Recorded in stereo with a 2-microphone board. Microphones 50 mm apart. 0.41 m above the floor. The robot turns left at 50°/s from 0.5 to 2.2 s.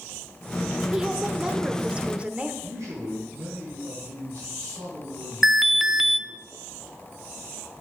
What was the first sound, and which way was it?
A woman speaking, 10° right (ahead or behind).